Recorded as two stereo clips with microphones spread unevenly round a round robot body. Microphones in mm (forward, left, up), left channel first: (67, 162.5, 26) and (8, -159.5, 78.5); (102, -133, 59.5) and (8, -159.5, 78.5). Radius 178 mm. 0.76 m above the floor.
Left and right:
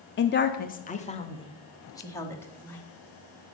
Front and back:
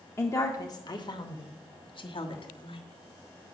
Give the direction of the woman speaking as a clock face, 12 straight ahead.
10 o'clock.